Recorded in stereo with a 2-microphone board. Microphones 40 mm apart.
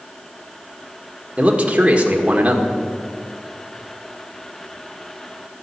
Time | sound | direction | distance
1.4 | a man speaking | 30° right (ahead or behind) | 1.6 m